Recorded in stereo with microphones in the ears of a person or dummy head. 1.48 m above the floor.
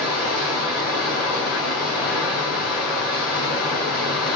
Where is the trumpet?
No trumpet in this recording.